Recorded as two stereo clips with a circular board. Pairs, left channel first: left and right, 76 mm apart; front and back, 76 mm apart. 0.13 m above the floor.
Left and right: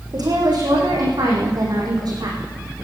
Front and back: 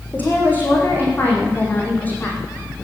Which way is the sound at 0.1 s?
65° right.